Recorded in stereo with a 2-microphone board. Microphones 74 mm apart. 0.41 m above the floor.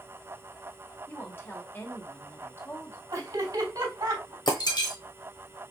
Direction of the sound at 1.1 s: 30° left (ahead or behind).